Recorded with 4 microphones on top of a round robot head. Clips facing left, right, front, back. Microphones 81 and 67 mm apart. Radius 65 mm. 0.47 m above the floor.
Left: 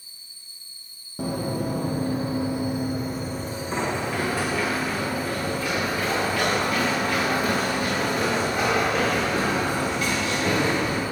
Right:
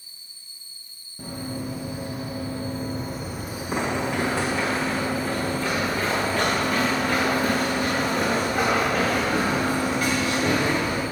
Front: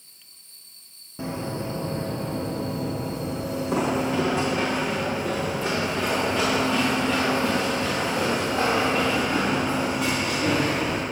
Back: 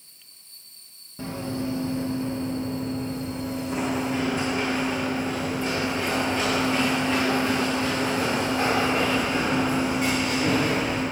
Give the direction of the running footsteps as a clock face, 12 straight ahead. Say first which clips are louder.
Left 5 dB, even; 10 o'clock.